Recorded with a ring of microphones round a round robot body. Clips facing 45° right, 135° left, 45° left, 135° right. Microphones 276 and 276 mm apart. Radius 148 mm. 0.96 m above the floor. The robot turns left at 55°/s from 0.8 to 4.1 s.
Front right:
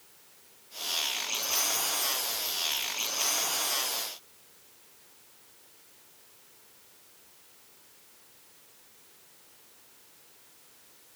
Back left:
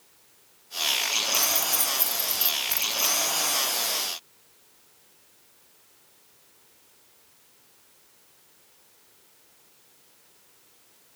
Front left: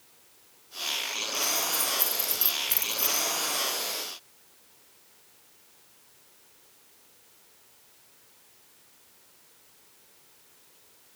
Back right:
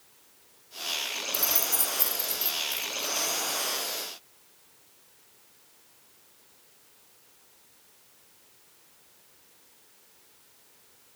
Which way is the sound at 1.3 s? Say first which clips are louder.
Back left 3 dB, front left 1 dB; straight behind.